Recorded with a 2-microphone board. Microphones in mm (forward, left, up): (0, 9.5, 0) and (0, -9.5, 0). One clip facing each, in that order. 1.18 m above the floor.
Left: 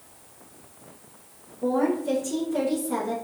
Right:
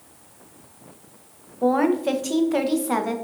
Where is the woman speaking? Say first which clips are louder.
Right 4 dB; 85° right, 0.6 m.